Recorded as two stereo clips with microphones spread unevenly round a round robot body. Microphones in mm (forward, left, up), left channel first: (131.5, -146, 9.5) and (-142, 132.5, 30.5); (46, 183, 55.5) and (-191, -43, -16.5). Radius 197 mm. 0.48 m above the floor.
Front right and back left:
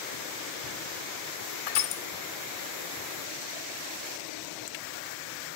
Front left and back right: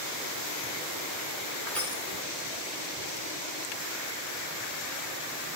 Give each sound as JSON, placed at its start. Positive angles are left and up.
{"t": 1.7, "sound": "crushing", "azimuth_deg": -45, "distance_m": 1.6}